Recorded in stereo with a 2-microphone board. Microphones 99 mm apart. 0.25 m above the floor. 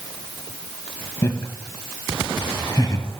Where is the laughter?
30° left (ahead or behind), 1.4 m; by 3.1 s 45° left (ahead or behind), 1.4 m.